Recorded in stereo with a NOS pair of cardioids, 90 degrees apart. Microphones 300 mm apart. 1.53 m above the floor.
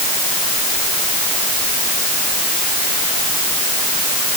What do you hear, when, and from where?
Only background noise.